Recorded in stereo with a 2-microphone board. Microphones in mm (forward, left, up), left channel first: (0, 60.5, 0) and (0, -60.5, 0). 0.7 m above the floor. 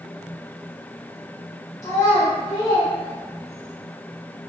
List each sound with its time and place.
1.8 s a child speaking: 75° left (ahead or behind), 1.1 m; by 3.7 s 20° left (ahead or behind), 1.0 m